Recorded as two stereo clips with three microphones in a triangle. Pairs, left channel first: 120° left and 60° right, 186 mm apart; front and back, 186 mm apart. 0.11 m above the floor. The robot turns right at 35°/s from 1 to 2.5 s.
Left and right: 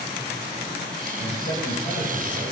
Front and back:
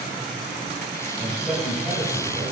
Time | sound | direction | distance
1.2 | a man speaking | 80° left | 3.5 m